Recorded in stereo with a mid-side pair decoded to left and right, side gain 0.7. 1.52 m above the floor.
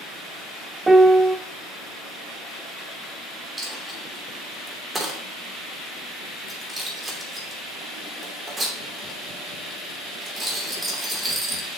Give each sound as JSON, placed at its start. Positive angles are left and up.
{"t": 0.9, "sound": "a piano", "azimuth_deg": -15, "distance_m": 0.6}
{"t": 3.6, "sound": "a dropped coin", "azimuth_deg": -15, "distance_m": 2.5}